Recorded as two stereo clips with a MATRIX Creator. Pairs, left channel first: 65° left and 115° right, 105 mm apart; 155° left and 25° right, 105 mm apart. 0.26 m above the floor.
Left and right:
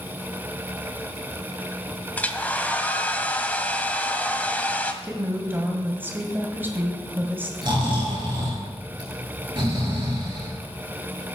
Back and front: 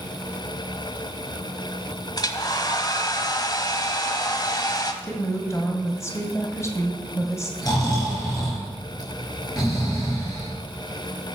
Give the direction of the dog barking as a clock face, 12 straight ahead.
No dog barking in this recording.